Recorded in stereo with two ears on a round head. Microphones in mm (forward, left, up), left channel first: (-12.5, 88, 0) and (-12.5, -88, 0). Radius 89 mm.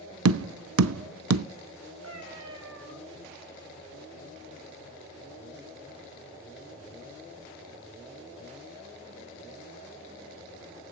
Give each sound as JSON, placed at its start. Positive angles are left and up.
{"t": 0.2, "sound": "tapping", "side_deg": -80, "distance_m": 0.5}
{"t": 2.0, "sound": "a cat meowing", "side_deg": -75, "distance_m": 4.0}